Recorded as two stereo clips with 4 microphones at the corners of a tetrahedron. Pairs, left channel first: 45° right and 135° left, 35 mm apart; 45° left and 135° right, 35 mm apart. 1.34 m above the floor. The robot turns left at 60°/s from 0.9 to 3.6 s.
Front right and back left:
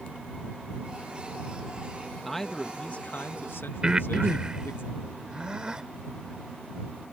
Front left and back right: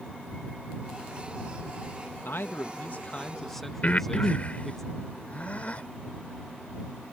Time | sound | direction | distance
2.2 | a man speaking | 45° left | ?
3.8 | breathing | 80° left | ?